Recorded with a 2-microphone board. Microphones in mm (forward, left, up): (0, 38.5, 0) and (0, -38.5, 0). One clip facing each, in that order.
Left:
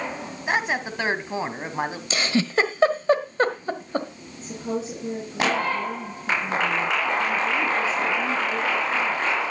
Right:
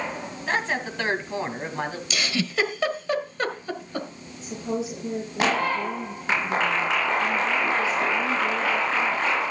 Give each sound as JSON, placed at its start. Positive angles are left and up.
{"t": 0.5, "sound": "a woman speaking", "side_deg": 15, "distance_m": 1.7}
{"t": 2.1, "sound": "a giggle", "side_deg": 35, "distance_m": 1.3}
{"t": 4.4, "sound": "a woman speaking", "side_deg": 45, "distance_m": 5.5}